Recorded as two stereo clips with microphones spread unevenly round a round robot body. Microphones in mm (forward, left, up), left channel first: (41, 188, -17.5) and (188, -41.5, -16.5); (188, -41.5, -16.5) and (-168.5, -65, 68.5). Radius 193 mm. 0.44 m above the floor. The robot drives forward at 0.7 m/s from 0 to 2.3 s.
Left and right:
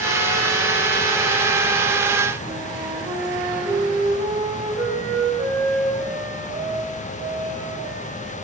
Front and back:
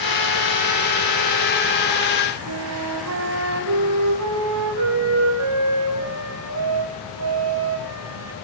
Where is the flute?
135° right, 4.5 m.